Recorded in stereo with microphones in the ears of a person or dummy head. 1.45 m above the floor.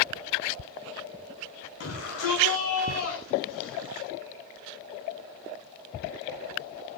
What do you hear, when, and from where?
1.8 s a shout: 90° left, 9.5 m